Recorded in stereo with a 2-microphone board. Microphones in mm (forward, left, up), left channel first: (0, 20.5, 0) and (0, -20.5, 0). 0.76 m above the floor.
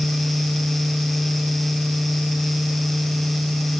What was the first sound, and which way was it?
Only background noise.